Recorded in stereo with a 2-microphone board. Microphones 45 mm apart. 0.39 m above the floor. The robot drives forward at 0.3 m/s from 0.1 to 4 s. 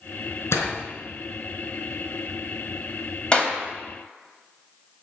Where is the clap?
20° left (ahead or behind), 2 m.